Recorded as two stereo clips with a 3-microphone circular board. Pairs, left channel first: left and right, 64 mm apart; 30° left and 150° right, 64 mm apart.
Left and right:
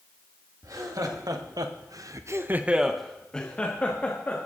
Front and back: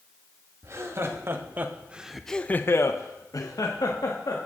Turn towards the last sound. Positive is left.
turn(degrees=30)